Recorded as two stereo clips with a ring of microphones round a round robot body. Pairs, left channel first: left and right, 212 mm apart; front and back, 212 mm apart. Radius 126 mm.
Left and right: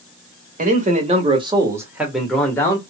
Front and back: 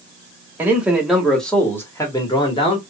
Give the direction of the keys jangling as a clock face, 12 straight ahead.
I don't hear keys jangling.